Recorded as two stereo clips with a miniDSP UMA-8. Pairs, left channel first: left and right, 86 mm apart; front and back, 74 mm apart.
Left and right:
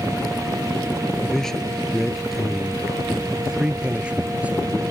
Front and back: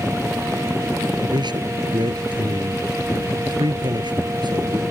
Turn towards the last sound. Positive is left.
turn(degrees=-165)